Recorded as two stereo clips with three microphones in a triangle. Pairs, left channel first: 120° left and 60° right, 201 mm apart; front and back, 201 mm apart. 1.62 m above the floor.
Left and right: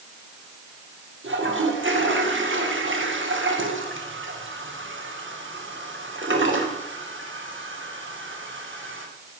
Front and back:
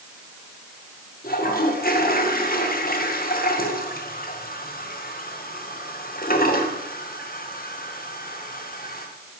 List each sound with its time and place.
1.2 s a toilet flushing: 45° right, 1.8 m